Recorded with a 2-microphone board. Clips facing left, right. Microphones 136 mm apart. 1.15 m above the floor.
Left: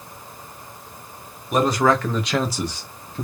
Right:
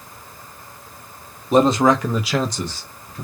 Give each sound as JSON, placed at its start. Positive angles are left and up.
{"t": 1.5, "sound": "a man speaking", "side_deg": -30, "distance_m": 0.8}